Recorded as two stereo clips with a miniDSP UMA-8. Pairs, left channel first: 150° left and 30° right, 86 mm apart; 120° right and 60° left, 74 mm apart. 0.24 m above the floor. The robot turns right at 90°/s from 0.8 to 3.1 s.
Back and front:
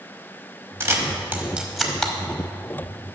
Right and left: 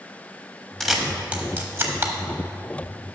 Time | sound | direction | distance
0.8 | a camera shutter | 35° right | 0.9 m